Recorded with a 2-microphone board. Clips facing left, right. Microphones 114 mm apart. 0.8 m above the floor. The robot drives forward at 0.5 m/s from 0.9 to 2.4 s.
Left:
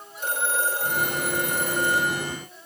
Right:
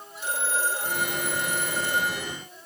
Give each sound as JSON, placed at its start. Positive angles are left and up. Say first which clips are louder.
{"t": 0.2, "sound": "a phone ringing", "louder": "left 2 dB", "side_deg": 50, "distance_m": 9.0}